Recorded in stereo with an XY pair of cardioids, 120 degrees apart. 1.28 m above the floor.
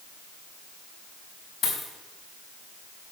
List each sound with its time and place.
1.6 s a dropped coin: 45° left, 4.5 m